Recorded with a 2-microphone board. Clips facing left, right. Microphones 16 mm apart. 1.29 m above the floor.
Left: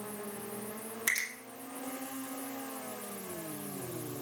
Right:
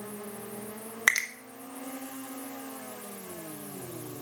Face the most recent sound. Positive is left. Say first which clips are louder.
# right 8 dB
turn(degrees=-70)  # may be behind; listen again after turning